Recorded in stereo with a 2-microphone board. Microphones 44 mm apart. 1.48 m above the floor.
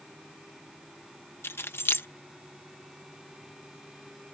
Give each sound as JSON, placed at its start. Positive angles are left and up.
{"t": 1.4, "sound": "keys jangling", "side_deg": 65}